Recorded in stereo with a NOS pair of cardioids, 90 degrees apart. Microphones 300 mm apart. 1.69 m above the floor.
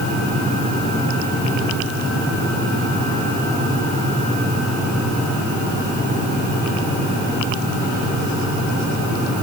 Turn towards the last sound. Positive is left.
No sound to turn to.